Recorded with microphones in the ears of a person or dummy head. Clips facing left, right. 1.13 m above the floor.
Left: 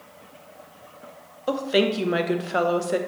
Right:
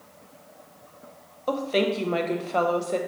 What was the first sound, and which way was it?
A woman speaking, 15° left (ahead or behind).